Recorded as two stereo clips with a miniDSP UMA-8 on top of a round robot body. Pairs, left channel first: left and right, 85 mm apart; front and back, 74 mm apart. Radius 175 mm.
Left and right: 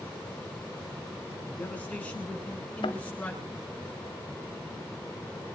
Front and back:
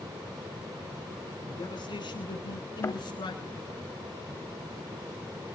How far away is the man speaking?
About 8.5 m.